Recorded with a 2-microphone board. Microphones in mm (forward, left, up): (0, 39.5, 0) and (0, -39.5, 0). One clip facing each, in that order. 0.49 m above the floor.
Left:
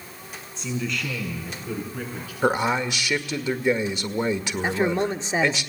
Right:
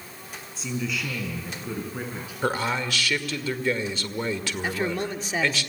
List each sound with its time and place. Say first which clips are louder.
0.6 s a man speaking: left 1 dB; centre (ahead or behind), 5 m; by 2.3 s 20° right (ahead or behind), 6 m
2.4 s a man speaking: left 4 dB; 20° left (ahead or behind), 1.6 m
4.6 s a man speaking: left 5 dB; 25° left (ahead or behind), 1.1 m